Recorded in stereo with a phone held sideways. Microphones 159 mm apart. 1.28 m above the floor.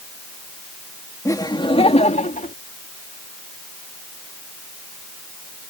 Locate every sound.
1.2 s laughter: 20° left (ahead or behind); by 2.5 s 55° left (ahead or behind)